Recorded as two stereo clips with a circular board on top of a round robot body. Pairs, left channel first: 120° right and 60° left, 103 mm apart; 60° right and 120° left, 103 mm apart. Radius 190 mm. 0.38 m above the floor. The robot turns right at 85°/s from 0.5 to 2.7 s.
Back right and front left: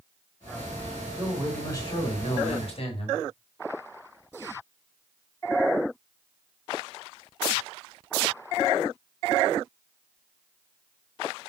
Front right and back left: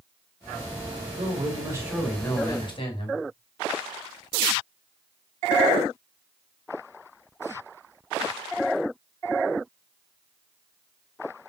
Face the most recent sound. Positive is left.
turn(degrees=-95)